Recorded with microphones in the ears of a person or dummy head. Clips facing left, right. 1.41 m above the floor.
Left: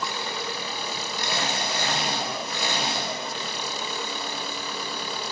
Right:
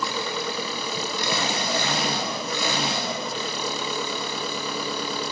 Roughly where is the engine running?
Right.